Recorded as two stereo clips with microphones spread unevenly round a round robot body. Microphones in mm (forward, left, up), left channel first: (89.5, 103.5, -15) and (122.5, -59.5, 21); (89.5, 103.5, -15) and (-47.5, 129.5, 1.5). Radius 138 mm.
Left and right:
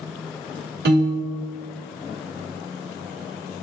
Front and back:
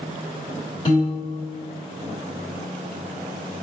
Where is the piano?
60° right, 1.4 m.